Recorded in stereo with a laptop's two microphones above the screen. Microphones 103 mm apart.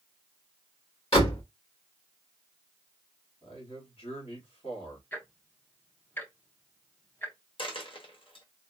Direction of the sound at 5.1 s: 20° left (ahead or behind).